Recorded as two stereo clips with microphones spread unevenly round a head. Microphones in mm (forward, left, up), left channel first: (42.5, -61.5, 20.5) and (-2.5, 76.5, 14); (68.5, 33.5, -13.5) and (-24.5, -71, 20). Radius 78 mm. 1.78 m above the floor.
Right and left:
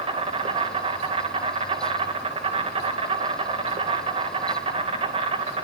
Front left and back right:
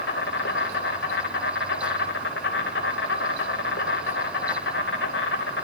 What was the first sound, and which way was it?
An insect, 55° left.